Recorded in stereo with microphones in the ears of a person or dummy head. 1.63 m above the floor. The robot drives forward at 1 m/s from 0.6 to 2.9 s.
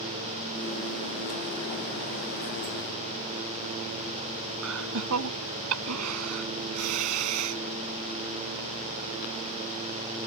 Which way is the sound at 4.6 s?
80° right.